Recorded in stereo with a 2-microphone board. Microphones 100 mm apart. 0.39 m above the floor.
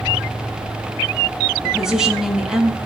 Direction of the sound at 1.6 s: 5° right (ahead or behind).